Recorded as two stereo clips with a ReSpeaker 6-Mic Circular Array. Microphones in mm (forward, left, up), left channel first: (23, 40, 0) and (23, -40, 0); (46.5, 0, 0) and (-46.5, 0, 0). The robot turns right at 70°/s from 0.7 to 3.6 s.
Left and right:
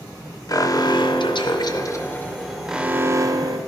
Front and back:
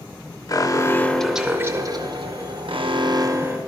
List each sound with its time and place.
0.5 s an alarm: 50° left, 0.6 m; by 3.6 s 110° right, 0.6 m